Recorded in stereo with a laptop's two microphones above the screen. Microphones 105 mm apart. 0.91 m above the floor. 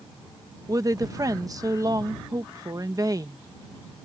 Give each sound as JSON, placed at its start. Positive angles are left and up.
{"t": 0.7, "sound": "a woman speaking", "side_deg": -35}